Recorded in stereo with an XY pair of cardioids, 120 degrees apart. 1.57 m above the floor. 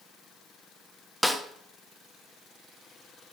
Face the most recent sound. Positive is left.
turn(degrees=5)